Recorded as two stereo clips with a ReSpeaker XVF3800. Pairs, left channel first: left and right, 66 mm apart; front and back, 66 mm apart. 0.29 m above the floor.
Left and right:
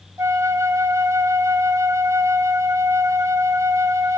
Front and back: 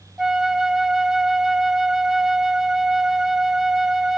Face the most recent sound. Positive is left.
turn(degrees=-100)